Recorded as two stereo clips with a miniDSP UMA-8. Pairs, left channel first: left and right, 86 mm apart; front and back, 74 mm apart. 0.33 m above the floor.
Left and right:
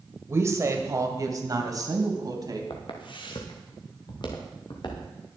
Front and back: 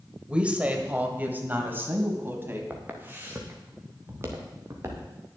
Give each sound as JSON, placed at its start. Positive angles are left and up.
{"t": 0.3, "sound": "a woman speaking", "azimuth_deg": -115, "distance_m": 1.7}
{"t": 2.7, "sound": "footsteps", "azimuth_deg": 115, "distance_m": 3.0}